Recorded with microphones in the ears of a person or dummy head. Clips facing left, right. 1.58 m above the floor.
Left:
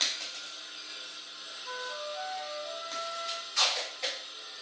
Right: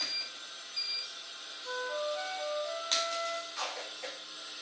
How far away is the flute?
About 2 m.